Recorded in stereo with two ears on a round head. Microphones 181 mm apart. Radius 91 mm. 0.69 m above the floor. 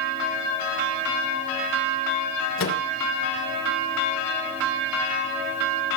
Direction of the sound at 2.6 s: 70° left (ahead or behind).